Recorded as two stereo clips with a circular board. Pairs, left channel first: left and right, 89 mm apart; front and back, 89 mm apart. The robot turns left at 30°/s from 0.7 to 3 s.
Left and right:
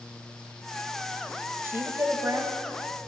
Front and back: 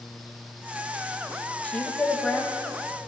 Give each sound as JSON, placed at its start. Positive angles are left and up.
{"t": 1.6, "sound": "a woman speaking", "azimuth_deg": -60, "distance_m": 1.4}